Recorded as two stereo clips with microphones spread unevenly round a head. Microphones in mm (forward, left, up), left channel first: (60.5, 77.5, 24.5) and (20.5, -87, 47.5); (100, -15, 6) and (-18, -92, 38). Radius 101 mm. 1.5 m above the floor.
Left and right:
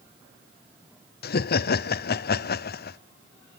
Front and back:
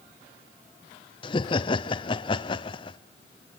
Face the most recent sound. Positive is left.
turn(degrees=85)